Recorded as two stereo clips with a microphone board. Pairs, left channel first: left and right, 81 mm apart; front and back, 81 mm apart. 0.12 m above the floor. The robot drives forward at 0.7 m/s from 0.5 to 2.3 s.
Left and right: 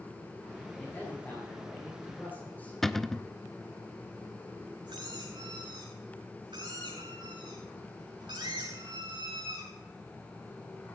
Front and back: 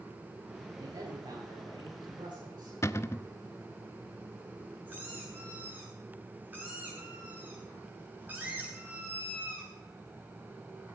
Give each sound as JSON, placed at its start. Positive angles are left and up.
{"t": 0.8, "sound": "a man speaking", "azimuth_deg": 155, "distance_m": 6.5}
{"t": 2.8, "sound": "a cupboard door", "azimuth_deg": 5, "distance_m": 0.5}
{"t": 4.9, "sound": "a squeak", "azimuth_deg": -110, "distance_m": 6.0}